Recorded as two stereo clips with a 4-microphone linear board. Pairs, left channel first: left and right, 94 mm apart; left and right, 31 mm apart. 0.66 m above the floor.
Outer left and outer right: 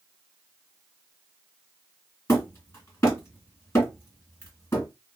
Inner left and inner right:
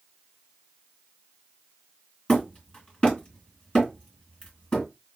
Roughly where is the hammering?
Left.